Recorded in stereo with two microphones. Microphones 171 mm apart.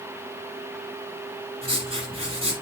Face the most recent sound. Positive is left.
turn(degrees=-35)  # may be behind; listen again after turning